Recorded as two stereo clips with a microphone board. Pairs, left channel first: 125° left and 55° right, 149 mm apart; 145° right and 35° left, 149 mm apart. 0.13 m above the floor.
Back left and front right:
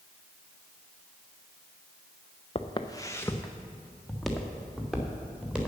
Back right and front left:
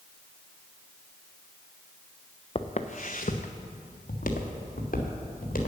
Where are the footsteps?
170° left, 0.8 m; by 5.7 s 140° right, 3 m.